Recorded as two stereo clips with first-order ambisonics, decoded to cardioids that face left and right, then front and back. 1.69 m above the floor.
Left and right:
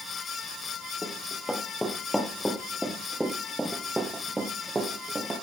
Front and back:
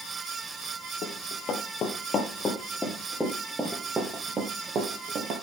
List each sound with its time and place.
1.0 s running footsteps: 15° left, 2 m; by 5.3 s 165° right, 2 m